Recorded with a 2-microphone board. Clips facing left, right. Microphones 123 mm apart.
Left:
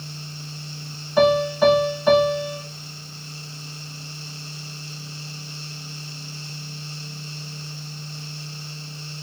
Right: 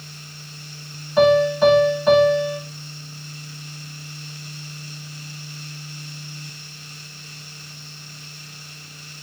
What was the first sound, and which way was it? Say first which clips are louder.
A piano: right 2 dB; centre (ahead or behind).